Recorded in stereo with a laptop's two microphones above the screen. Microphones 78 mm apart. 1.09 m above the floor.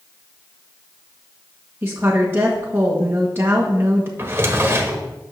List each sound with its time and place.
1.8 s a woman speaking: 30° right (ahead or behind), 1.7 m
4.2 s a drawer: 30° right (ahead or behind), 1.3 m